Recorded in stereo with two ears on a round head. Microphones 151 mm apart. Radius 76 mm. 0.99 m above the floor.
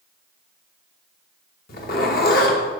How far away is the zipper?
About 1.1 m.